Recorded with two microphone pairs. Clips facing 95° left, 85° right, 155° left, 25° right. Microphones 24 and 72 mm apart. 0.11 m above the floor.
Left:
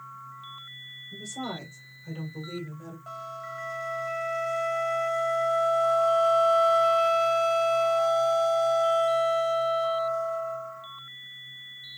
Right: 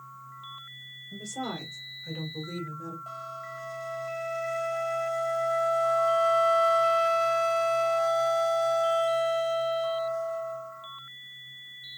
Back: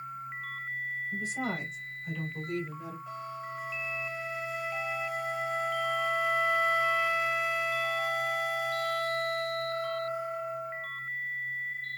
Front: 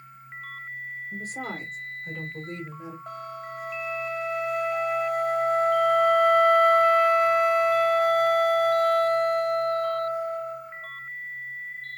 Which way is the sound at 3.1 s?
5° left.